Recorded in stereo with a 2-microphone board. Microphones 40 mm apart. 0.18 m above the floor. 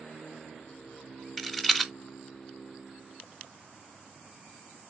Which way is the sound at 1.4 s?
5° left (ahead or behind).